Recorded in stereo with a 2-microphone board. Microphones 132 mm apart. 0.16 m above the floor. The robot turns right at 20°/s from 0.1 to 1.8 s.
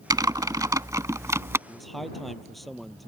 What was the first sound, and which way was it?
Typing on a keyboard, 30° right (ahead or behind).